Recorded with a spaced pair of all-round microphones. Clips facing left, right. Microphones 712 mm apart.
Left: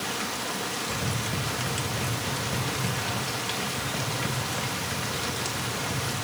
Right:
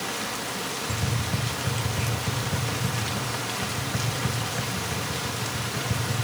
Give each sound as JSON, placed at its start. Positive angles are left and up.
{"t": 0.9, "sound": "tapping", "side_deg": -30, "distance_m": 2.5}